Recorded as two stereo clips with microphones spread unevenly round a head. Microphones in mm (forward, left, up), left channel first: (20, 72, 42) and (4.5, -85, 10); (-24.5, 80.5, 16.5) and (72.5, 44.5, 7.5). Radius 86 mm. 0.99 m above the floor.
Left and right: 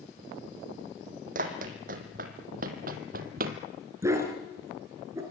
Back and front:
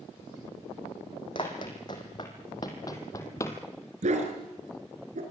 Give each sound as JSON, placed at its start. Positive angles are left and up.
{"t": 1.4, "sound": "running footsteps", "azimuth_deg": -140, "distance_m": 2.5}
{"t": 4.0, "sound": "a dog barking", "azimuth_deg": -20, "distance_m": 4.5}